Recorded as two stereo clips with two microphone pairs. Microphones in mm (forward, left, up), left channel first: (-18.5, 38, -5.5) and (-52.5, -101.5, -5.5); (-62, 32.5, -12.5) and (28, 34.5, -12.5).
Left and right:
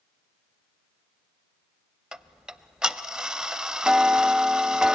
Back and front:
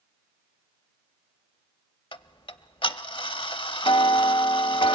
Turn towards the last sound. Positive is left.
turn(degrees=175)